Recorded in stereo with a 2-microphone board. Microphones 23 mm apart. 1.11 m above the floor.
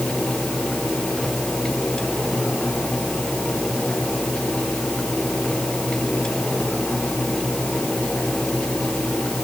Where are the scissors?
No scissors in this recording.